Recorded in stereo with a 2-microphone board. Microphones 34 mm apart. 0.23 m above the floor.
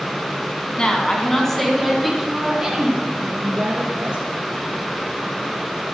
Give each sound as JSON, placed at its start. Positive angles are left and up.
{"t": 0.8, "sound": "a woman speaking", "side_deg": 30, "distance_m": 1.5}